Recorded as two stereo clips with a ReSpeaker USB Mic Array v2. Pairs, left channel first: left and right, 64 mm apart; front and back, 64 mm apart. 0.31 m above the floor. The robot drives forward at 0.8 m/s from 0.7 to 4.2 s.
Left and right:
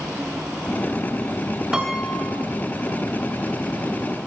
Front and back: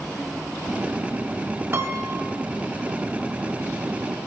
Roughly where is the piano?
Behind.